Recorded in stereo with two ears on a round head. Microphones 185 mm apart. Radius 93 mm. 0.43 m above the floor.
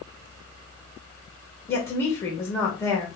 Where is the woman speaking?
15° left (ahead or behind), 1.5 m.